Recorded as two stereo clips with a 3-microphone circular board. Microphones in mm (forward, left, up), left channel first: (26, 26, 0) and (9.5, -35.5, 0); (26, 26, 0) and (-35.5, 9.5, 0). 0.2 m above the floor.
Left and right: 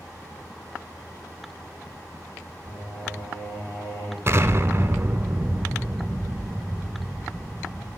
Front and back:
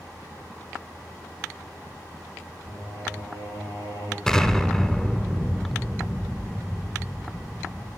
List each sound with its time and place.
2.6 s singing: 45° left, 4.5 m
4.3 s an explosion: 65° right, 0.6 m